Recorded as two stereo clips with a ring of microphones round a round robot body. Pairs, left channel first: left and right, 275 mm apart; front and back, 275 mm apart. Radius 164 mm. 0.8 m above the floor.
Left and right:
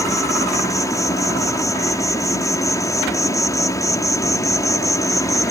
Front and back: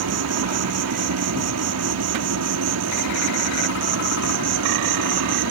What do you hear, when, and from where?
0.0 s an insect: 165° left